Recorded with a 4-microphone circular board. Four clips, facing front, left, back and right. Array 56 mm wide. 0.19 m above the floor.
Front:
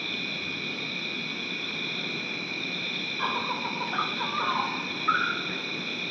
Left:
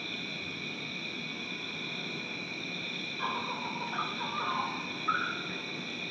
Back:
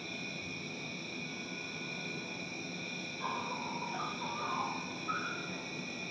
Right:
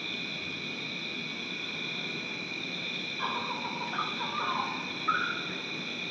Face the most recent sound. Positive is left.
turn(degrees=-10)